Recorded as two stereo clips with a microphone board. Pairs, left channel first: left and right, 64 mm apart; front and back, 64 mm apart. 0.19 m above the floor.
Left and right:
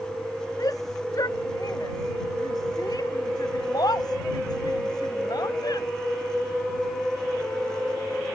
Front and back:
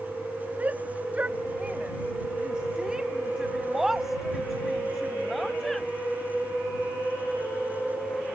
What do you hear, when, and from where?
0.6 s a shout: 115° left; by 5.9 s 85° left